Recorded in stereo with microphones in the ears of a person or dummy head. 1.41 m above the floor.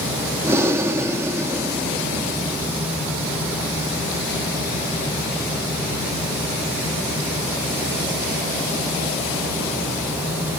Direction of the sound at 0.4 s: 15° right (ahead or behind).